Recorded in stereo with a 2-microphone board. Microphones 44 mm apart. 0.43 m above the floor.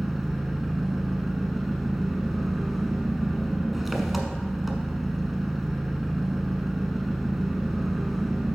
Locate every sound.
0.0 s an engine running: 5° right (ahead or behind), 1.1 m